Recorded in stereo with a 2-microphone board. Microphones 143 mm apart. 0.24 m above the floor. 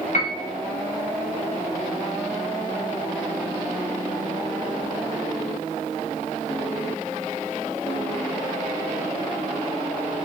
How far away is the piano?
About 1.0 m.